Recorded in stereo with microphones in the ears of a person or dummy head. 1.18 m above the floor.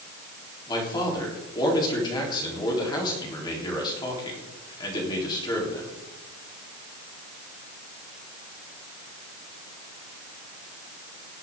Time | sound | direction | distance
0.7 | a man speaking | 20° left (ahead or behind) | 3.5 m